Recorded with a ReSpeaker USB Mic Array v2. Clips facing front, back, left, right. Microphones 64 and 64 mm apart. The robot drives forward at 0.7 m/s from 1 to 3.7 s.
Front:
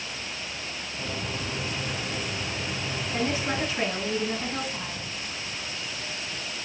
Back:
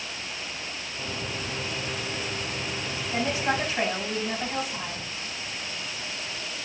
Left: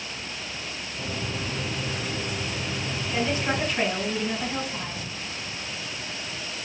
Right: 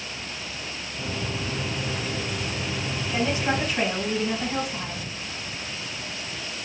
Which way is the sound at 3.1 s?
170° right.